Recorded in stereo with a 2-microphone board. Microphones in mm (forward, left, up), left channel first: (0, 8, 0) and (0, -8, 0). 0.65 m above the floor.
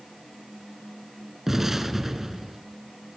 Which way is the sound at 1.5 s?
25° right (ahead or behind).